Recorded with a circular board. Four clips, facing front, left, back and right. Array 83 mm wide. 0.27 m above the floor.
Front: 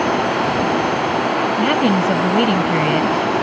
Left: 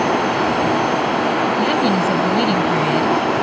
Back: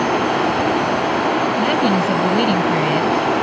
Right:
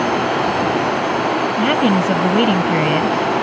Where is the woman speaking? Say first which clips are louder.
Right 1 dB, front 1 dB; 65° right.